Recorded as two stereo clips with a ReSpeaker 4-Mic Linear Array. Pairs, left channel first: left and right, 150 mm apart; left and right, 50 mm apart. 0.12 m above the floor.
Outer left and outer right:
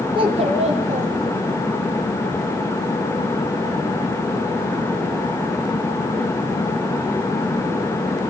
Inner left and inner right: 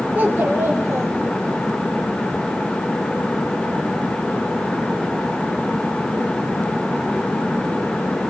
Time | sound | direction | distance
0.1 | a child speaking | 35° right (ahead or behind) | 2.5 m